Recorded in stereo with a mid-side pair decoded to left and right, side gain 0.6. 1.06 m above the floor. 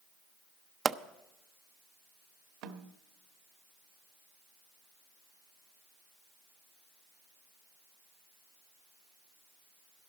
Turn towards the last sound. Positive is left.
turn(degrees=-70)